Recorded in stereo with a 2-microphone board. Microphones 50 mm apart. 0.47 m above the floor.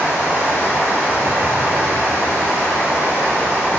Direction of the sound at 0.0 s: 70° right (ahead or behind).